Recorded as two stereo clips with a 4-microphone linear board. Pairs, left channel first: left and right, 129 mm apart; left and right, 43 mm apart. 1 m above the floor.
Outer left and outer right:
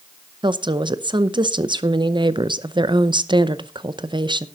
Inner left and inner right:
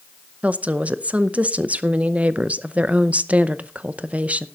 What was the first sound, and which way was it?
A woman speaking, 35° right (ahead or behind).